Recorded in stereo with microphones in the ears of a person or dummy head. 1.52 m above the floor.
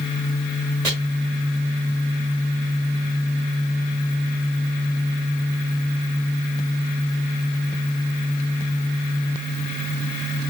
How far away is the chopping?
About 1.3 m.